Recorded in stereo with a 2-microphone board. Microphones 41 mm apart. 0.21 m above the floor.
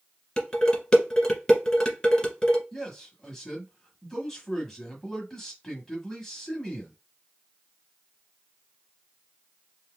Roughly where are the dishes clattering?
Centre.